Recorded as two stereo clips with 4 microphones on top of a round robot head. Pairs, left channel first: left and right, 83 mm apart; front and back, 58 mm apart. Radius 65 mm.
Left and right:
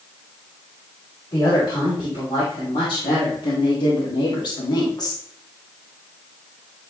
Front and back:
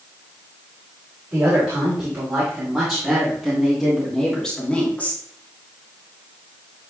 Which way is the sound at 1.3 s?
120° left.